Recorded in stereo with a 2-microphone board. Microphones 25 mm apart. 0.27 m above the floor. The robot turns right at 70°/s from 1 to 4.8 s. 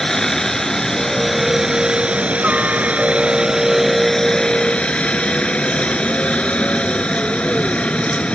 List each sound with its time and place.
0.0 s a helicopter: 155° left; by 8.3 s 60° left